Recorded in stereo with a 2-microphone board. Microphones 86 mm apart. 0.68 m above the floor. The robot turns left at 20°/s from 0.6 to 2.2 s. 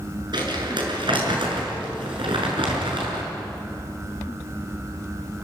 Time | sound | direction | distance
0.3 | crumpling | 60° right (ahead or behind) | 7 m